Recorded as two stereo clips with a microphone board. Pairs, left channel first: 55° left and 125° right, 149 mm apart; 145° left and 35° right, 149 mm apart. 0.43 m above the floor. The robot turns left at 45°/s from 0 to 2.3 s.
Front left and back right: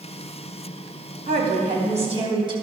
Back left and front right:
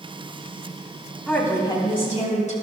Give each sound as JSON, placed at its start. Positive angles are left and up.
{"t": 1.3, "sound": "a woman speaking", "azimuth_deg": -130, "distance_m": 2.5}